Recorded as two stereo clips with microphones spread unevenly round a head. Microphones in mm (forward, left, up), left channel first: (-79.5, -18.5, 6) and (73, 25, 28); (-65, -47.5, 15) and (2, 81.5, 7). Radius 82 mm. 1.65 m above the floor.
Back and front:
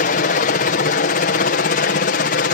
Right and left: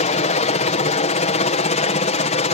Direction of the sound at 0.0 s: 150° right.